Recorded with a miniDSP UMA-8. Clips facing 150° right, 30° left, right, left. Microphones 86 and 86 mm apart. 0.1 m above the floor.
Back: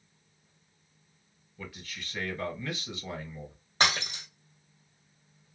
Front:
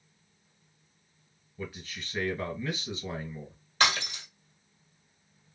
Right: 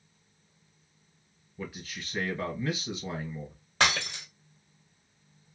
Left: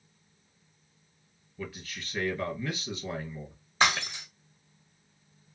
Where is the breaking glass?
95° right, 1.6 m.